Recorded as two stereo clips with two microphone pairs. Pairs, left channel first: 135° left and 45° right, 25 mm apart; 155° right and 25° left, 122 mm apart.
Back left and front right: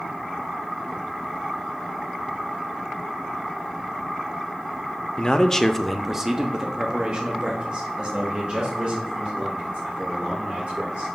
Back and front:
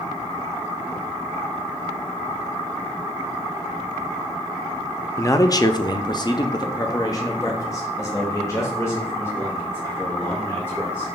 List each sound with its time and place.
5.2 s a man speaking: 150° left, 0.6 m; by 11.1 s 85° right, 3 m